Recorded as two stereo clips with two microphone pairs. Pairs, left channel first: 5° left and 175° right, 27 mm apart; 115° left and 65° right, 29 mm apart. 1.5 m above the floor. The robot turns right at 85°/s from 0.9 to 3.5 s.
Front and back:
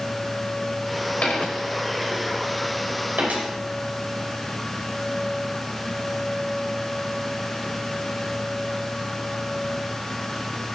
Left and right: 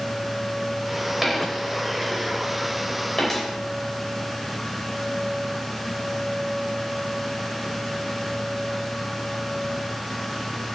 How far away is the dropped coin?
About 3.5 m.